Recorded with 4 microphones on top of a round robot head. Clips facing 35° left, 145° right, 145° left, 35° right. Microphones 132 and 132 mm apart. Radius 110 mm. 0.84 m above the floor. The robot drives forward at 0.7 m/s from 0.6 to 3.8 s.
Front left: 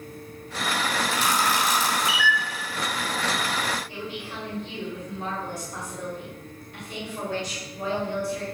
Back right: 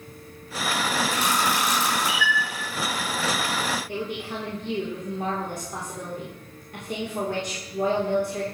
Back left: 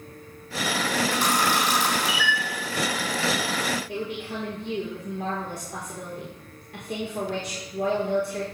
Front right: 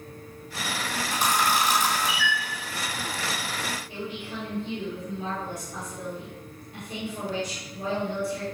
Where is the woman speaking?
175° left, 3.5 m.